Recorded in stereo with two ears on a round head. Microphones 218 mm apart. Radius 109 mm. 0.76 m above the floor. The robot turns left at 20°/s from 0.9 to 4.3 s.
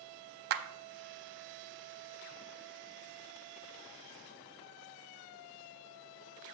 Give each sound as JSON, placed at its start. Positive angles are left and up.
{"t": 0.5, "sound": "a clap", "side_deg": -40, "distance_m": 0.6}